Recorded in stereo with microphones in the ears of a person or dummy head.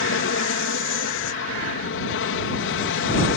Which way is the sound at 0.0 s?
65° left (ahead or behind).